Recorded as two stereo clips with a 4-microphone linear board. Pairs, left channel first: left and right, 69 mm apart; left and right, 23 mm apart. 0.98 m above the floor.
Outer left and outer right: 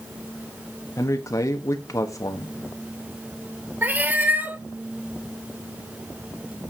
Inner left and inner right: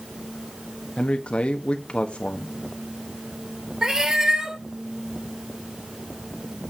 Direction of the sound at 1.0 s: 50° left (ahead or behind).